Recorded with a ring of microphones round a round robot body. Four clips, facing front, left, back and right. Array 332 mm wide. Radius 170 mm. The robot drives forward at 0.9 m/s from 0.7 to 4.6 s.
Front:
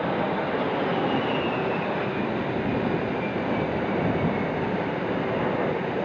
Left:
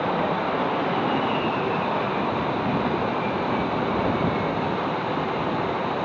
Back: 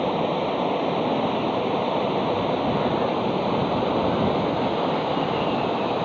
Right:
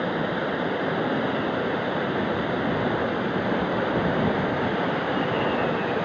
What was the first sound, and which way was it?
Running water, 155° right.